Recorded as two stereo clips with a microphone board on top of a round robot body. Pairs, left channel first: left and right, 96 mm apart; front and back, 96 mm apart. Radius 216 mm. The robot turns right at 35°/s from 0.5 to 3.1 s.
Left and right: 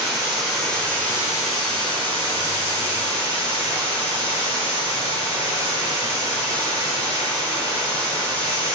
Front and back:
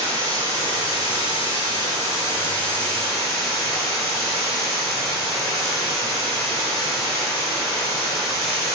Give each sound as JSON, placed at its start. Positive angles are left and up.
{"t": 0.0, "sound": "running water", "azimuth_deg": 0, "distance_m": 1.4}